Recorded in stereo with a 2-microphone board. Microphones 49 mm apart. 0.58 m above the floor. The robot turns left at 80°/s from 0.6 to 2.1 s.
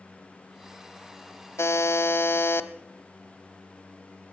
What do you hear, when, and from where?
1.6 s a buzzer: 100° left, 0.8 m; by 2.7 s 60° left, 0.8 m